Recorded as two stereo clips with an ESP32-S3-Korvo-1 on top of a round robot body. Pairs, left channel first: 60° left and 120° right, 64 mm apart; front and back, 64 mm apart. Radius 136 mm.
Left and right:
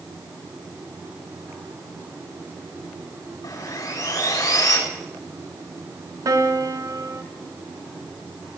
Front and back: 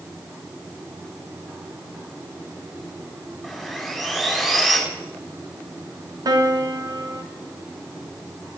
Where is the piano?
155° right, 2.5 m.